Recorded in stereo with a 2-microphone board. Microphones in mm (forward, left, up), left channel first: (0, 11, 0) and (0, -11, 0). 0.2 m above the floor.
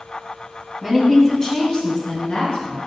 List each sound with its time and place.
0.8 s a woman speaking: centre (ahead or behind), 1.0 m; by 2.8 s 55° left (ahead or behind), 2.5 m